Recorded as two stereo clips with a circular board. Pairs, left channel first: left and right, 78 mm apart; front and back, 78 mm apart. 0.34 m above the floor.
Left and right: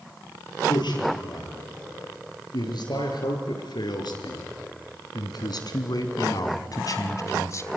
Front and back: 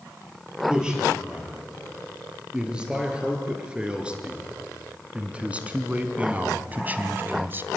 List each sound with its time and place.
0.7 s a man speaking: 100° left, 7 m; by 7.7 s 125° left, 1.6 m